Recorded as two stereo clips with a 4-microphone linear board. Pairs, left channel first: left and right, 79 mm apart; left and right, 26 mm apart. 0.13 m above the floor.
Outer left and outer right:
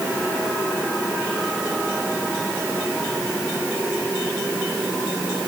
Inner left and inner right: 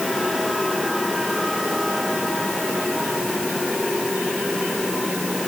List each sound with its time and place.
Only background noise.